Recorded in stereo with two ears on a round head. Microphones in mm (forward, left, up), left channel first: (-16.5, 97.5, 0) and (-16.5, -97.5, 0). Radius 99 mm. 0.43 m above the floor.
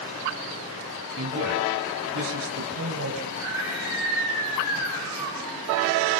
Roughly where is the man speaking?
Right.